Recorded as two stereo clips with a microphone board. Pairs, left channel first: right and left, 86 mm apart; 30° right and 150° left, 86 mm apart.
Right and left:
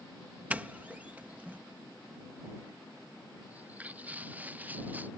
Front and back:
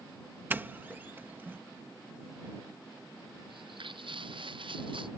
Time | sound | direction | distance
0.5 | a doorbell | 130° left | ?
3.5 | footsteps | 160° left | ?